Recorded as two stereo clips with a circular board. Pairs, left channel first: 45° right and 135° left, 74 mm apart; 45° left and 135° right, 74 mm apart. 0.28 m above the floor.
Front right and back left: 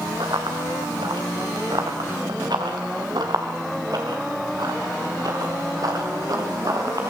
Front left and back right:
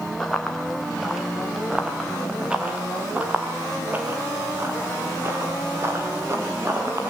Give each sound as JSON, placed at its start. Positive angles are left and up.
{"t": 0.2, "sound": "running footsteps", "azimuth_deg": 130, "distance_m": 3.0}